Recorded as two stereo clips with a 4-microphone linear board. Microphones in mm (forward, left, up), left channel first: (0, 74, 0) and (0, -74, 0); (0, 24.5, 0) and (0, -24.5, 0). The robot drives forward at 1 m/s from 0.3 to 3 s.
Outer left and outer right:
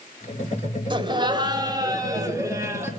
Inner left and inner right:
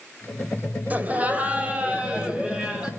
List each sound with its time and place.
0.9 s laughter: 35° right (ahead or behind), 1.8 m; by 2.9 s 20° right (ahead or behind), 3 m